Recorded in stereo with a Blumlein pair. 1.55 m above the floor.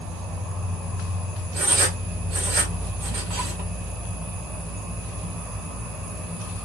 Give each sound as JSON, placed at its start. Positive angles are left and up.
{"t": 0.0, "sound": "an insect", "azimuth_deg": -10, "distance_m": 1.5}
{"t": 1.6, "sound": "writing", "azimuth_deg": -40, "distance_m": 2.0}